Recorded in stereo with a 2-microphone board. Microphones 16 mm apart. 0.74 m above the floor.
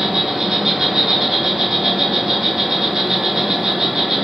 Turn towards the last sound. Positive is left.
turn(degrees=-40)  # may be behind; listen again after turning